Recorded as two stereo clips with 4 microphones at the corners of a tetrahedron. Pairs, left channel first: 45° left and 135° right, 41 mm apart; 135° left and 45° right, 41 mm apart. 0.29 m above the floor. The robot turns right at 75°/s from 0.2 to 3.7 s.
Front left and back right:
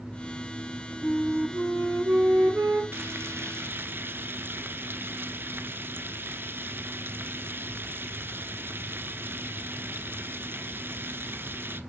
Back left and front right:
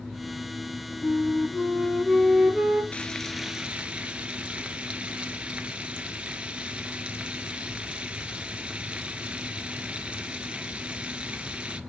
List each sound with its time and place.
1.0 s a flute: 125° left, 2.5 m; by 2.8 s 100° right, 2.5 m
2.9 s frying: 160° right, 0.8 m; by 11.8 s 105° right, 0.8 m